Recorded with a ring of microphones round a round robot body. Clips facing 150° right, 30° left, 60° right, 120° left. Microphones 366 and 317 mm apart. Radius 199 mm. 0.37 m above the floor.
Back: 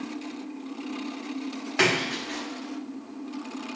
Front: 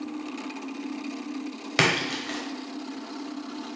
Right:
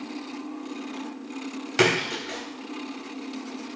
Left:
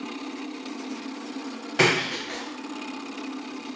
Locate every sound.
1.8 s a splash: 5° right, 0.9 m